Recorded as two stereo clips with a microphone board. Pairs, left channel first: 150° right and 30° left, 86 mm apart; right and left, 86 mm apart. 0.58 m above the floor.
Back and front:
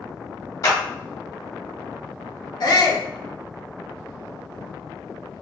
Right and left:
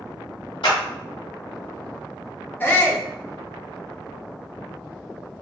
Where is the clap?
100° right, 2 m.